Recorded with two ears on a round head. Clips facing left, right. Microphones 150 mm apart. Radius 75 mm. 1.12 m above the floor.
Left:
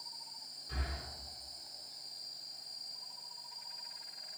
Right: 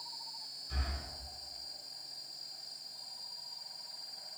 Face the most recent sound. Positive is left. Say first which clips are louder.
# even
turn(degrees=75)  # may be behind; listen again after turning